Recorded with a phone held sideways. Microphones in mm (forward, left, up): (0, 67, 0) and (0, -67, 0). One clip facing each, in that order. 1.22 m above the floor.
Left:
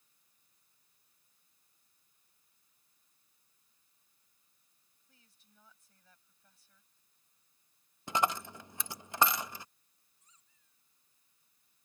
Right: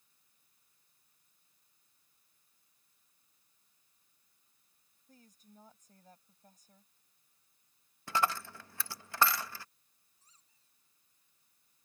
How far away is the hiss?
No hiss in this recording.